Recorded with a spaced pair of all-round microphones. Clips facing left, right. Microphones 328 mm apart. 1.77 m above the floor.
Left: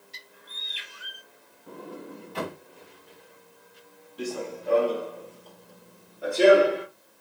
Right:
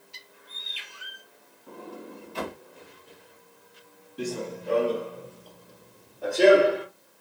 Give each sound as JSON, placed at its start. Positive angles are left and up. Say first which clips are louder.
{"t": 0.1, "sound": "a bird", "louder": "left 1 dB", "side_deg": 25, "distance_m": 1.0}
{"t": 1.7, "sound": "a sliding door", "louder": "left 1 dB", "side_deg": 65, "distance_m": 1.8}
{"t": 4.2, "sound": "running footsteps", "louder": "right 1 dB", "side_deg": -25, "distance_m": 1.9}